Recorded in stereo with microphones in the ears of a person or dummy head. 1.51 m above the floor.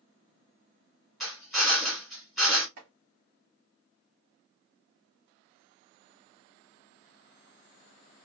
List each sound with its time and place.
1.2 s a drill: centre (ahead or behind), 1.3 m
2.8 s chopping: 60° right (ahead or behind), 1.4 m